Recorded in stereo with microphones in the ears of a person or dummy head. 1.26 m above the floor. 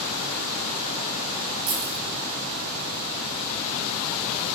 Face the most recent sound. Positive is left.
turn(degrees=-80)